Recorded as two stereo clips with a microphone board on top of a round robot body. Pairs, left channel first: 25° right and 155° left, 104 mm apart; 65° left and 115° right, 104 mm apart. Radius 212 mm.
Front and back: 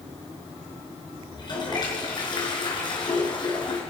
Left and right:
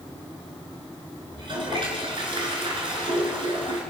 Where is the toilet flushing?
70° right, 4 m.